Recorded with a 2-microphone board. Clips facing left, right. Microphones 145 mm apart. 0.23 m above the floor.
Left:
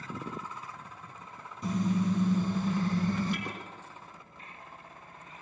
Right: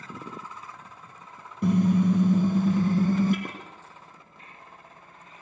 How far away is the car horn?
About 2.5 m.